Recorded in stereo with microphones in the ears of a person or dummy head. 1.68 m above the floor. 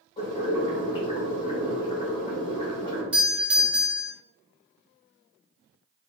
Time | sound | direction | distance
0.2 | boiling | 35° left (ahead or behind) | 1.5 m
3.1 | a doorbell | centre (ahead or behind) | 1.0 m